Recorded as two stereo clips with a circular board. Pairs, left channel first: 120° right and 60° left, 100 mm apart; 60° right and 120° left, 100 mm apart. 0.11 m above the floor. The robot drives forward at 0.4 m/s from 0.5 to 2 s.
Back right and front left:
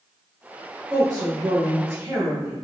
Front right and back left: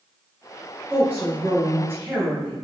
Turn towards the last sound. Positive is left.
turn(degrees=80)